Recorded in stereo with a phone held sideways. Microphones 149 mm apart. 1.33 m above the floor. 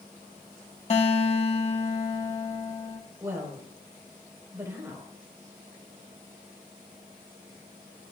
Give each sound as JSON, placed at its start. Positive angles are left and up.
{"t": 0.9, "sound": "a guitar", "side_deg": 45, "distance_m": 1.7}
{"t": 3.2, "sound": "a woman speaking", "side_deg": -15, "distance_m": 5.0}